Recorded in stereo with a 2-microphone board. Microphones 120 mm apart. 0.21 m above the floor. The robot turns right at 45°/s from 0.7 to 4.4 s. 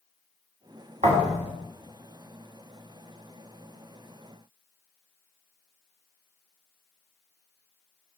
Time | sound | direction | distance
1.0 | a thud | 85° right | 1.2 m